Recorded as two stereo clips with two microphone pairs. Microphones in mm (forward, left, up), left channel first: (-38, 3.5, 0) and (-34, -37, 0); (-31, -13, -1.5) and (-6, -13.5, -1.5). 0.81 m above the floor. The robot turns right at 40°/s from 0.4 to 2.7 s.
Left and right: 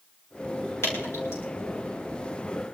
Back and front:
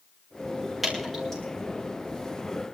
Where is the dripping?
85° left, 9 m; by 1.4 s 110° left, 9 m.